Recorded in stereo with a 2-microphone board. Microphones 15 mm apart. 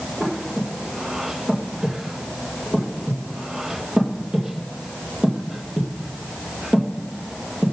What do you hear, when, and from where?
0.2 s breathing: 80° right, 2.0 m